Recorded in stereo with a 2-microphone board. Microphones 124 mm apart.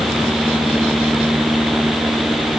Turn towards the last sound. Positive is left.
No sound to turn to.